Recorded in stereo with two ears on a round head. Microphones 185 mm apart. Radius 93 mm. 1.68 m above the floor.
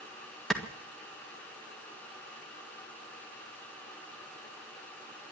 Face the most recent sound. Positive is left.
turn(degrees=0)  # may be behind; listen again after turning